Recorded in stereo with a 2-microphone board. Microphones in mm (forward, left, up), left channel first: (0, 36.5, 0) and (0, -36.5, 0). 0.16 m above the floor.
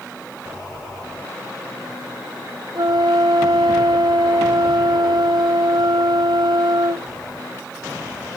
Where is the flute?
80° right, 0.8 m.